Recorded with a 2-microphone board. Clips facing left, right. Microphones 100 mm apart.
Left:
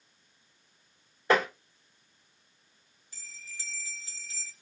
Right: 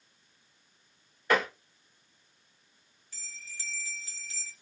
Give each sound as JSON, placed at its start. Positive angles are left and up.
{"t": 1.3, "sound": "tapping", "side_deg": 25, "distance_m": 1.5}
{"t": 3.1, "sound": "a bell", "side_deg": 15, "distance_m": 1.0}